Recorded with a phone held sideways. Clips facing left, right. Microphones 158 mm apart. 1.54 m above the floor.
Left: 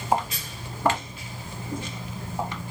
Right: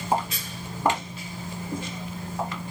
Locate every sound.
0.1 s footsteps: 30° right (ahead or behind), 1.8 m; by 2.6 s 20° left (ahead or behind), 1.6 m